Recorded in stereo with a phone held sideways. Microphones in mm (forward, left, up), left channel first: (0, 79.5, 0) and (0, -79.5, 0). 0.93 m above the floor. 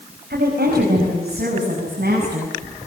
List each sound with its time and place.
0.3 s a woman speaking: 75° right (ahead or behind), 5 m